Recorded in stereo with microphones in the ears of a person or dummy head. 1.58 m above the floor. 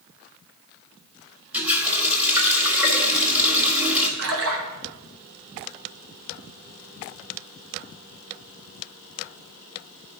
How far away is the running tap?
About 1.7 m.